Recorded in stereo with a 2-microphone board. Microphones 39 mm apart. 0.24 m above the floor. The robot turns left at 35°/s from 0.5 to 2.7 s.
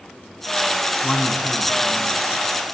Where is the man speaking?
160° left, 3 m; by 2.2 s 120° left, 3 m.